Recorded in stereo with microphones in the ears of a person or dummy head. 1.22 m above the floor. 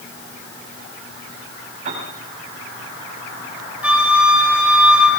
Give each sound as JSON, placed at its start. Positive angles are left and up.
{"t": 1.9, "sound": "a piano", "side_deg": -45, "distance_m": 6.5}
{"t": 3.8, "sound": "a flute", "side_deg": -10, "distance_m": 4.5}